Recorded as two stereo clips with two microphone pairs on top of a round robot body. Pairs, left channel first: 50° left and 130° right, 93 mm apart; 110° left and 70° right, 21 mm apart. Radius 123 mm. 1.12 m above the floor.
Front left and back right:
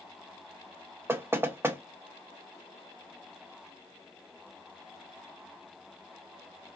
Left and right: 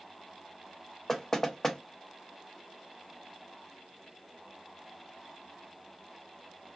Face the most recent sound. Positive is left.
turn(degrees=175)